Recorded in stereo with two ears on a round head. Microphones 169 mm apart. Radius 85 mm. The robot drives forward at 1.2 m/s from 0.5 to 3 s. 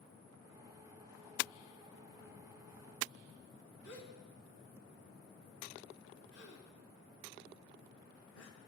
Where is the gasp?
70° left (ahead or behind), 3 m.